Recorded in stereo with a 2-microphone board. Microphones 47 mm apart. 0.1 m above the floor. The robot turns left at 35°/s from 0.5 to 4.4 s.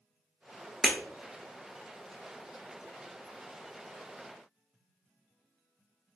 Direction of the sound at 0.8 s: 10° right (ahead or behind).